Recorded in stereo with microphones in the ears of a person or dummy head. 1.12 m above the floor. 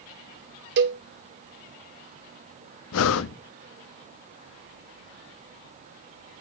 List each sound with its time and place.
0.8 s a cowbell: 55° right (ahead or behind), 0.9 m
2.9 s breathing: 80° left, 1.1 m